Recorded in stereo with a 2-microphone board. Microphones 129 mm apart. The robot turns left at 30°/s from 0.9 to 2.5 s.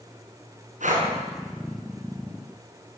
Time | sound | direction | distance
0.8 | breathing | 75° right (ahead or behind) | 5.5 m